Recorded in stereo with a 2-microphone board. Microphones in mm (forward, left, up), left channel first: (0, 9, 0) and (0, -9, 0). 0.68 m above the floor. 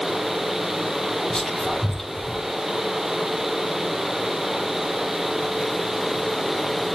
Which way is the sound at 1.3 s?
35° left (ahead or behind).